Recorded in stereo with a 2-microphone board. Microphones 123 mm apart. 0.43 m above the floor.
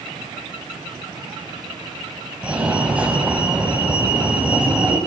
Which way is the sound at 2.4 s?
10° right (ahead or behind).